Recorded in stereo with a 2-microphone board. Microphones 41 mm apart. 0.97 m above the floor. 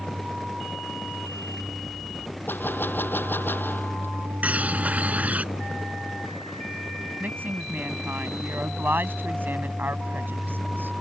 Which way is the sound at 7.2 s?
50° right (ahead or behind).